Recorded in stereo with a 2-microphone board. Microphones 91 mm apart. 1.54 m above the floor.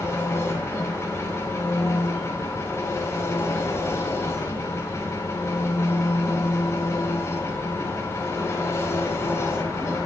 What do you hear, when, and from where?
0.0 s an engine running: 35° left (ahead or behind), 4 m